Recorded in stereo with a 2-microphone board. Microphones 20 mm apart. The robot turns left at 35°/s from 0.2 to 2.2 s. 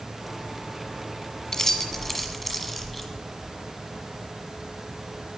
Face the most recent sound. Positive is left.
turn(degrees=5)  # may be behind; listen again after turning